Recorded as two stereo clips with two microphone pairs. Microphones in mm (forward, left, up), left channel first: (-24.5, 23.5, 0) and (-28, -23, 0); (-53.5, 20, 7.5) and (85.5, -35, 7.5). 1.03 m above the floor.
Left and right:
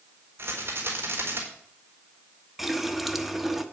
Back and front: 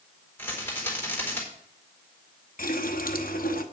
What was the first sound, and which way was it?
A rattle, 125° right.